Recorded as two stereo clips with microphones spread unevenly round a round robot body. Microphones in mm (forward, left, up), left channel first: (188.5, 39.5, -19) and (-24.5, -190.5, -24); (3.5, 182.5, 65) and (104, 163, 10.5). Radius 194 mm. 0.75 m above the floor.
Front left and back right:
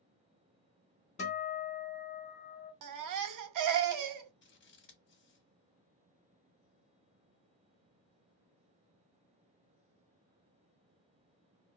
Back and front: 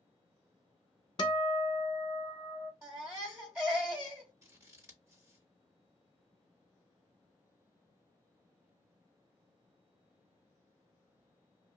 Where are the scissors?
Straight ahead, 1.2 m.